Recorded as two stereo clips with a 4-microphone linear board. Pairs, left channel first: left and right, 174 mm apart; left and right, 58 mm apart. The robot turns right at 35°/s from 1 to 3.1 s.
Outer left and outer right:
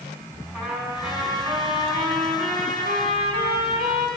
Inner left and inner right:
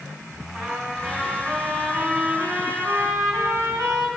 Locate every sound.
0.5 s a trumpet: straight behind, 5 m; by 4.1 s 105° right, 5 m